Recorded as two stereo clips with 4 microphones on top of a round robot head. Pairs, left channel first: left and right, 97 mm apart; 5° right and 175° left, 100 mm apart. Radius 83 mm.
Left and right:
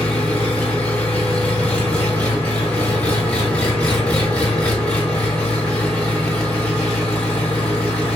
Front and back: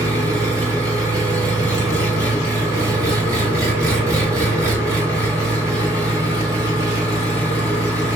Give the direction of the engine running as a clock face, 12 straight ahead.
7 o'clock.